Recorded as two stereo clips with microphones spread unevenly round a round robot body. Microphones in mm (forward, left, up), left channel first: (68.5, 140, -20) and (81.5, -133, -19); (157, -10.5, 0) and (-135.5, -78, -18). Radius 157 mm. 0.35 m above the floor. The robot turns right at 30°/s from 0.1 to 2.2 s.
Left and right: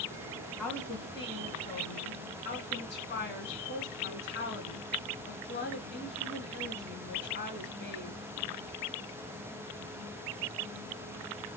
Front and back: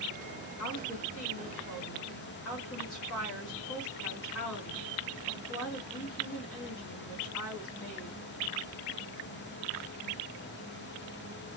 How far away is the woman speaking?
About 2 m.